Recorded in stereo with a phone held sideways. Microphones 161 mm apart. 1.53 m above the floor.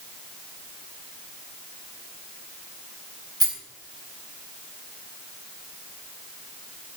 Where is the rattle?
25° right (ahead or behind), 8.5 m.